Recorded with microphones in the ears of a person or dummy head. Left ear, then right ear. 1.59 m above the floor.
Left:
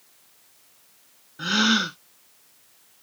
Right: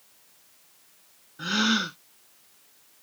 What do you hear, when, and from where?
1.4 s a gasp: 5° left (ahead or behind)